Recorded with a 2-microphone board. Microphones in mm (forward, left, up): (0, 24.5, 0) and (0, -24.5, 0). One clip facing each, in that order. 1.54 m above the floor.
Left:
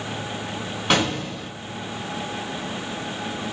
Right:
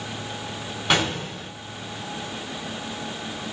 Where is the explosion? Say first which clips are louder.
Left 1 dB; centre (ahead or behind), 3 m.